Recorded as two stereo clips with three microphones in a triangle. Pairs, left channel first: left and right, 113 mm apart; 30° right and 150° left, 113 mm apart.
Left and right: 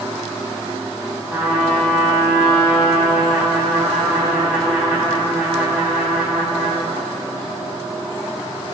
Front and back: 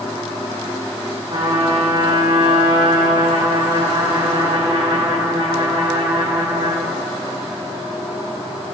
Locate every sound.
1.3 s a trumpet: 175° right, 1.6 m